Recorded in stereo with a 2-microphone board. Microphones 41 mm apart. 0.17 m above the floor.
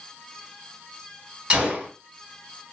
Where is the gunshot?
25° right (ahead or behind), 2 m.